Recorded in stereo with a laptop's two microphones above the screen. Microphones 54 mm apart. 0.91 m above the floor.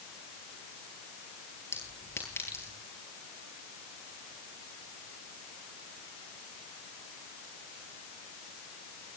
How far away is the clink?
About 10 m.